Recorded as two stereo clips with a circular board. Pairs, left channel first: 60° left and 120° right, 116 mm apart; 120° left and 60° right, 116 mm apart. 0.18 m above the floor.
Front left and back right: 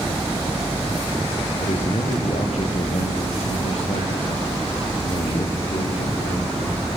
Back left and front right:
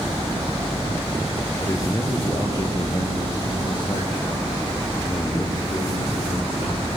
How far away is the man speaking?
About 3.5 m.